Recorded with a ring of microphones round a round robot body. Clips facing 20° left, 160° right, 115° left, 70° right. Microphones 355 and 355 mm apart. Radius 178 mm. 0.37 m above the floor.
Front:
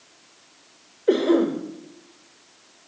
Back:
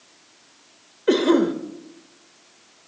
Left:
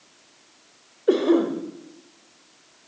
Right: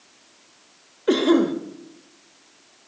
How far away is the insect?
No insect in this recording.